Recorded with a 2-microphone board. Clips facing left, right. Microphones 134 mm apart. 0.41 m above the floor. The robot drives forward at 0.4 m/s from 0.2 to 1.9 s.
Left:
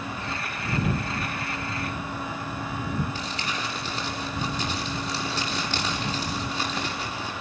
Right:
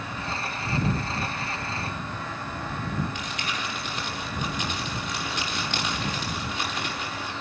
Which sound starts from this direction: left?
Crumpling, at 3.1 s.